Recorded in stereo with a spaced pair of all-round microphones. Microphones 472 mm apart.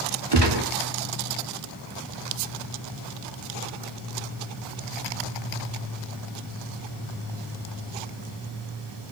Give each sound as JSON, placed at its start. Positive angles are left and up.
{"t": 0.3, "sound": "a gunshot", "side_deg": -55, "distance_m": 1.5}